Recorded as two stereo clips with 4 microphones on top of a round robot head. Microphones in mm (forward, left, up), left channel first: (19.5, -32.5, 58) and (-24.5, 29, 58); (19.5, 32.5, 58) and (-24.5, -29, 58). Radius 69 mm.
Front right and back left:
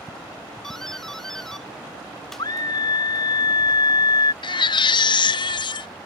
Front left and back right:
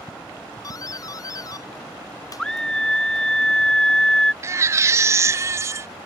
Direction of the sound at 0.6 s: 30° left.